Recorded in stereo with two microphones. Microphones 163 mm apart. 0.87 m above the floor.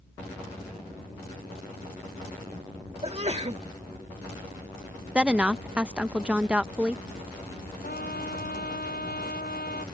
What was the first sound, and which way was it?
A sneeze, 40° right (ahead or behind).